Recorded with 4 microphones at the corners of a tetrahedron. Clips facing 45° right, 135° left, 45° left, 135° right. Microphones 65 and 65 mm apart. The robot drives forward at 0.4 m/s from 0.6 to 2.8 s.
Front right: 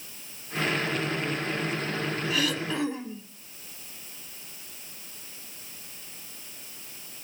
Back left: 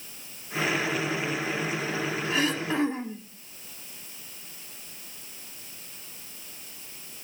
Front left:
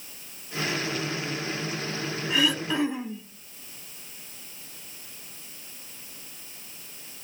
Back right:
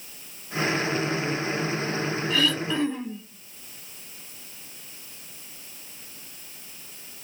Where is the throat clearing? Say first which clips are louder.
Back left 3 dB, front left 1 dB; 105° left, 1.3 m; by 3.3 s 120° left, 1.3 m.